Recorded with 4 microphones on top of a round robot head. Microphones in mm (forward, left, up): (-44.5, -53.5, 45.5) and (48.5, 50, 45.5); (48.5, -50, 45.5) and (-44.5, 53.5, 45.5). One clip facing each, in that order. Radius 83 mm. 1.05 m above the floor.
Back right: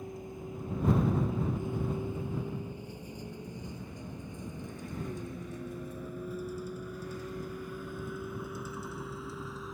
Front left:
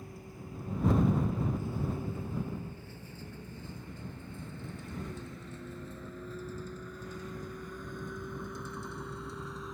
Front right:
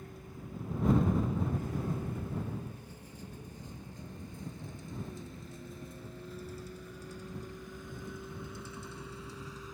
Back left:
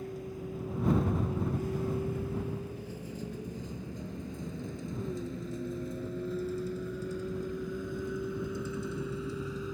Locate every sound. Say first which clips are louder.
0.0 s a vehicle: back right 5 dB, back left 9 dB; 155° left; by 9.7 s 140° left